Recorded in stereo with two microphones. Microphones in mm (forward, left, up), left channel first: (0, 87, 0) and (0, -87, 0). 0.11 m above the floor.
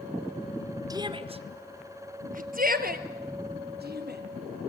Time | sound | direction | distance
0.9 | a shout | 20° right (ahead or behind) | 1.3 m